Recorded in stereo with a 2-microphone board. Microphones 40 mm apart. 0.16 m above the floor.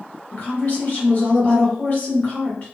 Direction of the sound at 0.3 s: 40° left (ahead or behind).